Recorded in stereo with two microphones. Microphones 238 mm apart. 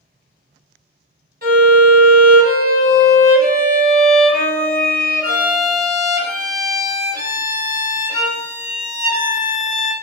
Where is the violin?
40° right (ahead or behind), 0.7 m.